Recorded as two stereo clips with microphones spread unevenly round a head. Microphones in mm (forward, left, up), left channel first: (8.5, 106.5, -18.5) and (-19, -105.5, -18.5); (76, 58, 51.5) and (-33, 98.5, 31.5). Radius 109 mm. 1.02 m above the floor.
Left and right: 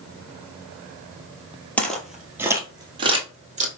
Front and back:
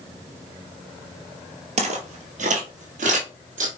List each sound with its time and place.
1.8 s footsteps: 165° left, 1.3 m; by 3.7 s 150° right, 1.8 m